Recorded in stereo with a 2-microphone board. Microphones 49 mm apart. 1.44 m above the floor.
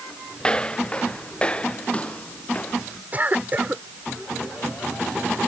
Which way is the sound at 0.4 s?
20° left (ahead or behind).